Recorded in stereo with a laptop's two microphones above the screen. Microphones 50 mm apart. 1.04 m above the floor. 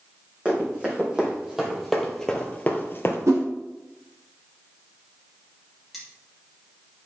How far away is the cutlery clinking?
About 2.5 m.